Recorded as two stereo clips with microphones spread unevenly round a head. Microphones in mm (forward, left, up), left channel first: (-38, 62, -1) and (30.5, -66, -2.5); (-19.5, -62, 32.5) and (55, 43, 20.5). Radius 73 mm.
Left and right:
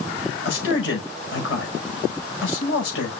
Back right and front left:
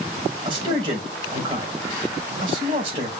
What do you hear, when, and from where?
0.5 s a man speaking: 115° left, 5 m